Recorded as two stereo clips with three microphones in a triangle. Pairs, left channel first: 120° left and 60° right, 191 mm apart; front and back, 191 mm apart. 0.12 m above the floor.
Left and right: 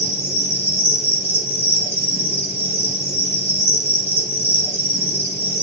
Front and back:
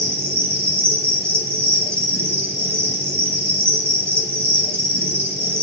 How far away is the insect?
About 2.5 m.